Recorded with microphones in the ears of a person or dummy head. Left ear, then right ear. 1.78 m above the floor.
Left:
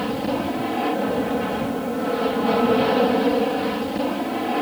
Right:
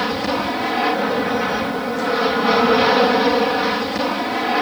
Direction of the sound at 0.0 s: 55° right (ahead or behind).